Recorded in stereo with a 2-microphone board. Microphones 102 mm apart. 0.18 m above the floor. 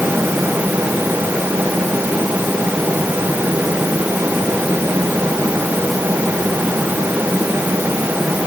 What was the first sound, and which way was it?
Only background noise.